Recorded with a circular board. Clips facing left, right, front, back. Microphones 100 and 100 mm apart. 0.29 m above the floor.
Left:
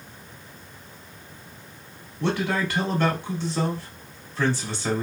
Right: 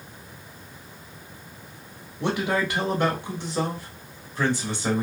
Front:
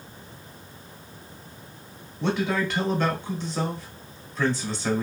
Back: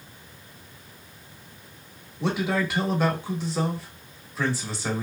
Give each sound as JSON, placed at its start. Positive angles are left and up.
{"t": 2.2, "sound": "a man speaking", "azimuth_deg": -115, "distance_m": 1.0}